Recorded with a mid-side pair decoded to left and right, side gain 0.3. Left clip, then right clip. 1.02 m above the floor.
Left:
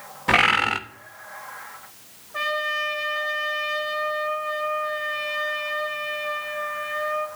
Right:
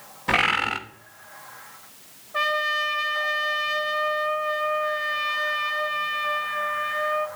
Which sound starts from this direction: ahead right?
A trumpet, at 2.3 s.